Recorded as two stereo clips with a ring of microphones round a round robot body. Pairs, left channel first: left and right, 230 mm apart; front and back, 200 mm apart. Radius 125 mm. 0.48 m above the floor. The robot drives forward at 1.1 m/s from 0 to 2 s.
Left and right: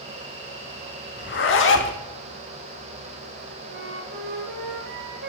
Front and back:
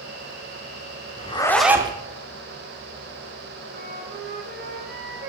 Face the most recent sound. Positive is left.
turn(degrees=-130)